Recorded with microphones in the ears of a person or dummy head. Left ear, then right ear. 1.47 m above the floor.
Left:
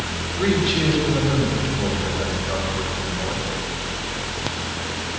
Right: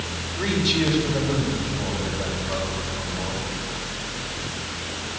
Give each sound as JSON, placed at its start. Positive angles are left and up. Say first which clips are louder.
{"t": 0.4, "sound": "a man speaking", "louder": "left 2 dB", "side_deg": -50, "distance_m": 6.0}